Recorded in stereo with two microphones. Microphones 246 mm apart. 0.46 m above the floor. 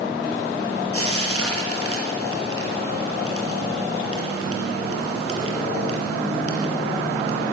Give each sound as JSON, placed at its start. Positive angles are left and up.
{"t": 0.9, "sound": "frying", "side_deg": -65, "distance_m": 5.0}